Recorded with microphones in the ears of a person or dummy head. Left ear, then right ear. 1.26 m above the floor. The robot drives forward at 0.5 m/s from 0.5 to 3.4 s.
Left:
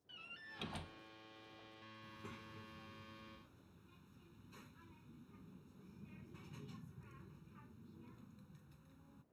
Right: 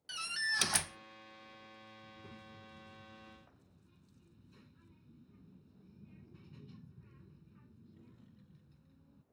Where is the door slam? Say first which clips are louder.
Right 18 dB; 60° right (ahead or behind); by 1.0 s 55° right (ahead or behind).